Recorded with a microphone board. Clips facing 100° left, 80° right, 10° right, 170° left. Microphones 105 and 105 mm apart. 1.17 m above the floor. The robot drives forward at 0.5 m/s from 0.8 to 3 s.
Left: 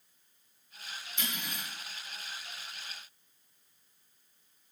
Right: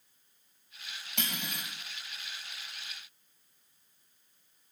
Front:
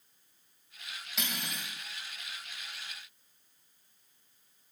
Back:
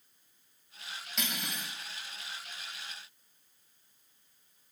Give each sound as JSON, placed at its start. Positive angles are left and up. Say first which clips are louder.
{"t": 1.2, "sound": "cutlery clinking", "louder": "right 2 dB, back 1 dB", "azimuth_deg": -100, "distance_m": 4.0}